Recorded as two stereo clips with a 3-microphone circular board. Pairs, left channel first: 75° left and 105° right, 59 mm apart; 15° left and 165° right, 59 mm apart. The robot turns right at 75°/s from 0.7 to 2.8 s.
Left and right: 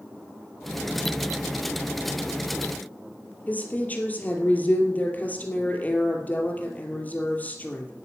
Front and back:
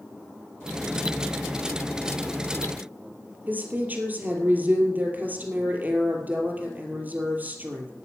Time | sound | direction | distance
3.5 | a woman speaking | 135° left | 3 m